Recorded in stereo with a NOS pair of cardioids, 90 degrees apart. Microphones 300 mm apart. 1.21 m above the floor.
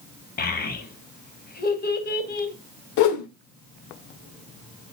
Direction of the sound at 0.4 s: 30° left.